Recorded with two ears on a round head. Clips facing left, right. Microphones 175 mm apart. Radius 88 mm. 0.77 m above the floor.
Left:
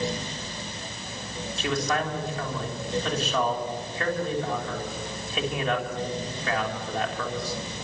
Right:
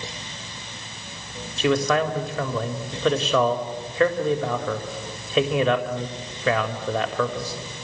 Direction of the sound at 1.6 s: 55° right (ahead or behind).